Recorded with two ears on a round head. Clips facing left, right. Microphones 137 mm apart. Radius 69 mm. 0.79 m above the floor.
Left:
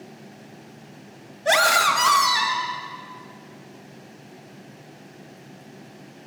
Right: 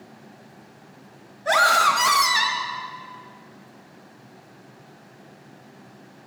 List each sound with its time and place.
1.4 s a scream: 30° left (ahead or behind), 1.3 m; by 2.7 s 45° right (ahead or behind), 1.4 m